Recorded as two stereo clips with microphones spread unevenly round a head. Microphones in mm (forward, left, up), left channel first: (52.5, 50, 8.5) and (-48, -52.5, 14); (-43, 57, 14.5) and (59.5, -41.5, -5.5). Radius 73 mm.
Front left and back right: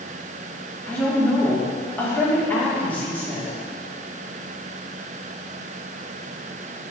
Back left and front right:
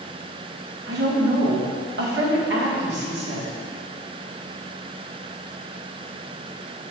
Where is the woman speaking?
35° right, 1.9 m.